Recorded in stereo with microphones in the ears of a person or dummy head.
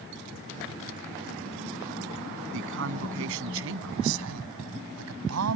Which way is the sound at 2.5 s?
65° right (ahead or behind).